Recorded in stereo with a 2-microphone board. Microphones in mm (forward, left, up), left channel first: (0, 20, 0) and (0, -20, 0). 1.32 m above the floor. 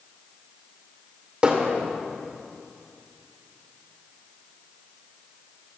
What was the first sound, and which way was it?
Hammering, 30° right (ahead or behind).